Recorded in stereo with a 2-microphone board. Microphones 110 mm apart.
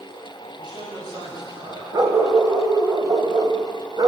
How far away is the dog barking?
About 1.7 m.